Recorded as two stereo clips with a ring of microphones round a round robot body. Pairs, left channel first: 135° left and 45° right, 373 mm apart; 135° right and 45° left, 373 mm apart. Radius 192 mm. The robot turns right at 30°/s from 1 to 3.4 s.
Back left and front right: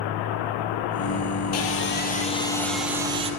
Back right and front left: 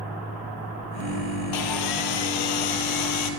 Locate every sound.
1.5 s sawing: 175° right, 1.8 m; by 3.3 s 120° right, 1.8 m